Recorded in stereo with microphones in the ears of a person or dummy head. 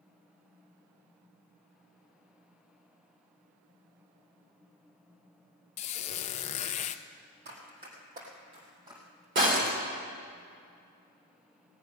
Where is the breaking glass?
40° right (ahead or behind), 3 m.